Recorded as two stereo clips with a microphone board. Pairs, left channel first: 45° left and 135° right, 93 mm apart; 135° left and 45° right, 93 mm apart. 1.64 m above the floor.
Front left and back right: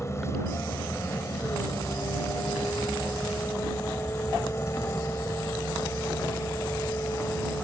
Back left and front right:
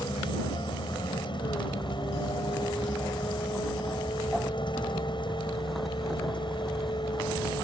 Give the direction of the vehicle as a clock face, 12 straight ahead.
8 o'clock.